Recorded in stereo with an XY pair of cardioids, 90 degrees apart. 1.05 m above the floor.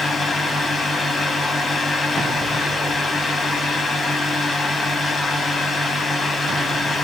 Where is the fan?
45° left, 1.5 m.